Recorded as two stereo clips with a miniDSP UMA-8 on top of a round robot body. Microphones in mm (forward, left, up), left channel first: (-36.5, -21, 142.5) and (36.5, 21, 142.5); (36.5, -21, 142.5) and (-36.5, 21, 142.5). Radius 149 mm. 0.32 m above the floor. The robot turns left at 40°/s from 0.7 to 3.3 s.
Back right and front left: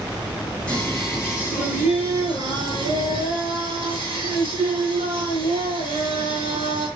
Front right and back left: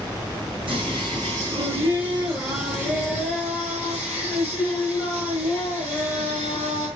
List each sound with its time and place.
0.7 s singing: 130° left, 9 m; by 6.9 s 30° left, 9 m